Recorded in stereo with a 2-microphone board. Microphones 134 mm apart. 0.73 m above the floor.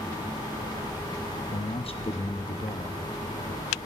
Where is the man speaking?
40° left (ahead or behind), 0.7 m.